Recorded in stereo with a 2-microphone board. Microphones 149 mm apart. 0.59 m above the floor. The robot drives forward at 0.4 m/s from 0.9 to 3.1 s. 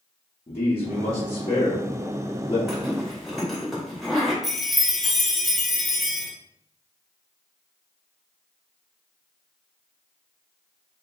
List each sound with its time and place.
0.5 s a man speaking: 40° left (ahead or behind), 1.2 m
2.7 s a zipper: centre (ahead or behind), 1.8 m
4.4 s a chime: centre (ahead or behind), 1.0 m